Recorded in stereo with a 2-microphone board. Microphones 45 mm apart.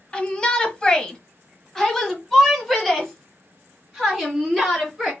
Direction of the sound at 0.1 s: 20° left (ahead or behind).